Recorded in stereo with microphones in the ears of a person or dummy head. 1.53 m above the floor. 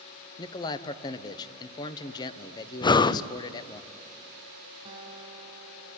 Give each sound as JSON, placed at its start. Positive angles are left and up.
{"t": 0.4, "sound": "a man speaking", "side_deg": 20, "distance_m": 1.0}
{"t": 2.8, "sound": "breathing", "side_deg": 25, "distance_m": 0.5}
{"t": 4.8, "sound": "a guitar", "side_deg": -30, "distance_m": 3.0}